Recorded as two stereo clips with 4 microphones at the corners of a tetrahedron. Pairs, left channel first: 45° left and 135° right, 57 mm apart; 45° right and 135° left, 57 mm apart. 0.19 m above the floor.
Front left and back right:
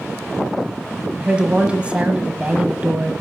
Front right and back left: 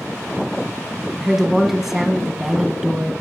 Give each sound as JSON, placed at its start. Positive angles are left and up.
{"t": 1.2, "sound": "a woman speaking", "azimuth_deg": -150, "distance_m": 1.2}